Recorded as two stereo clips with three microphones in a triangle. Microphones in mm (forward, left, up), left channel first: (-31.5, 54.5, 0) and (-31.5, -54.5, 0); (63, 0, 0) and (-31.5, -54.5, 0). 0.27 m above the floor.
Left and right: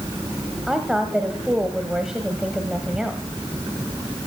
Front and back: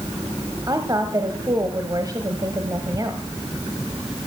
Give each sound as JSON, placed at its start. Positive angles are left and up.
{"t": 0.7, "sound": "a woman speaking", "azimuth_deg": -175, "distance_m": 1.2}